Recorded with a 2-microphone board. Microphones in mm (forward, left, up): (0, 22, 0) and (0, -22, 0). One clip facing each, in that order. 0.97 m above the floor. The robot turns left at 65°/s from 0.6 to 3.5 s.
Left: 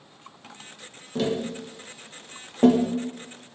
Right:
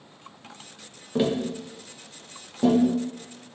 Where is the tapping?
20° right (ahead or behind), 0.6 m; by 2.9 s 50° left (ahead or behind), 0.6 m.